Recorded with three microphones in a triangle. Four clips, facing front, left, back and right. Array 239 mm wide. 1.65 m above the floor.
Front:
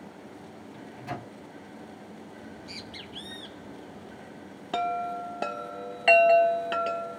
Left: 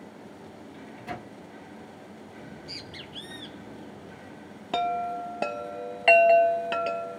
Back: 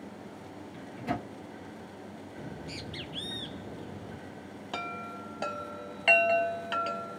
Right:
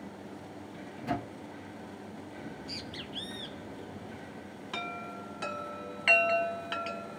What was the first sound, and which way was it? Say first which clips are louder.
A microwave: right 4 dB, back 4 dB; 165° right.